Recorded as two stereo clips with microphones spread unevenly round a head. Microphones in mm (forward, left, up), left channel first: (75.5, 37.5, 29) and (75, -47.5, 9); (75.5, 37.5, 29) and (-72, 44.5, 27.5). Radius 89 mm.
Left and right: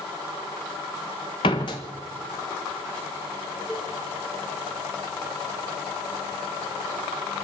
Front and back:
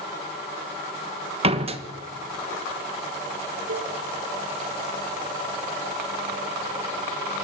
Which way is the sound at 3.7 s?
165° left.